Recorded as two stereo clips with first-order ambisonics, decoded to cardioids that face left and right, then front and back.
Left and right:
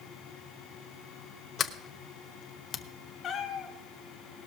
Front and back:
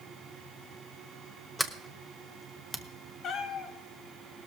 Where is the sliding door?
85° left, 0.7 m.